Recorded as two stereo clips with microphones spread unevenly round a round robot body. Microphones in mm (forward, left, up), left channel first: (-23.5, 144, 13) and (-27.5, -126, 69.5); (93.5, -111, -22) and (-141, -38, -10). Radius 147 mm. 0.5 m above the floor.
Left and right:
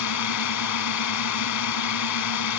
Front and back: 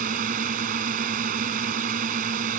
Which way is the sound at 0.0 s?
100° left.